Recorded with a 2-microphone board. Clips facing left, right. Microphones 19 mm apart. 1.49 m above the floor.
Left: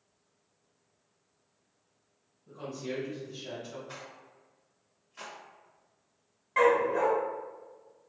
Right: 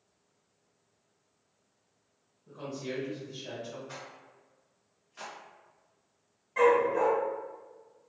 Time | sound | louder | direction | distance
2.5 | a woman speaking | even | 30° right (ahead or behind) | 1.4 m
3.9 | a rattle | even | 5° right (ahead or behind) | 0.8 m
6.6 | a dog barking | even | 30° left (ahead or behind) | 0.9 m